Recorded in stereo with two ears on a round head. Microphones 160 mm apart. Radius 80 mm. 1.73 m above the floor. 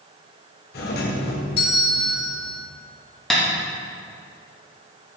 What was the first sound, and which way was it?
A doorbell, 55° left (ahead or behind).